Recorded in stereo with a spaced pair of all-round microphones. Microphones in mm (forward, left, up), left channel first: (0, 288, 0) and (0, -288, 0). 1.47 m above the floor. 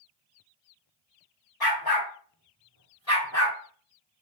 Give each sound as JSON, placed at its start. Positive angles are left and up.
{"t": 1.6, "sound": "a dog barking", "side_deg": 40, "distance_m": 1.3}